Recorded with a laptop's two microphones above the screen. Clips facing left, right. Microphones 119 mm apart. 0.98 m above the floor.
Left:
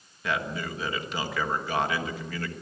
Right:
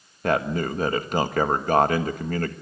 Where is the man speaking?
50° right (ahead or behind), 1.4 m.